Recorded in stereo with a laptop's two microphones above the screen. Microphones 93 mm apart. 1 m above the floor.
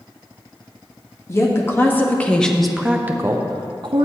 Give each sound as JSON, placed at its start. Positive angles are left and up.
{"t": 1.3, "sound": "a woman speaking", "side_deg": 35, "distance_m": 1.4}